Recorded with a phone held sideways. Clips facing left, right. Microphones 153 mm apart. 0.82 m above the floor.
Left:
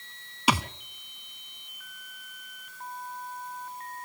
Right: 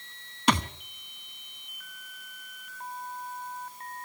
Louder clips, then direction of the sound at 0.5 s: Right 1 dB; 5° left (ahead or behind).